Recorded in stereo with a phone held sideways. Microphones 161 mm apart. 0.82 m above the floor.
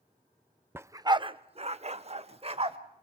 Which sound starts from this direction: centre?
A dog barking, at 0.8 s.